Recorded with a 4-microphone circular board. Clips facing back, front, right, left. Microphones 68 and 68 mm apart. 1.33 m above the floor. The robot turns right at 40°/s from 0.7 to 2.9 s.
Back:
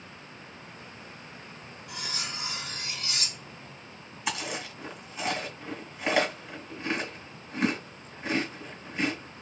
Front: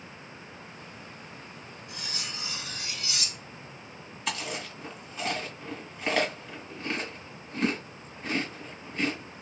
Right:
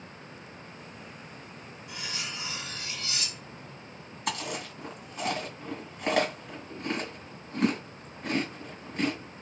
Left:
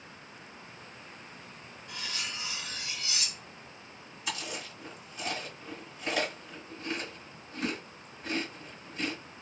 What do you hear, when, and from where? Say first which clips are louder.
1.9 s cutlery clinking: back 3 dB, right 1 dB; 170° right, 1.7 m; by 3.8 s 130° right, 1.7 m
4.3 s chewing: back 1 dB, right 5 dB; 105° right, 2 m